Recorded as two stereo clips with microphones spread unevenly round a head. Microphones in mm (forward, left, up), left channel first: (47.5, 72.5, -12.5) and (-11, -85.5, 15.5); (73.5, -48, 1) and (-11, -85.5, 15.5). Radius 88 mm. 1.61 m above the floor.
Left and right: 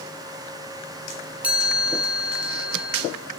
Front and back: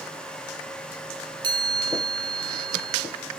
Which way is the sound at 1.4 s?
175° left.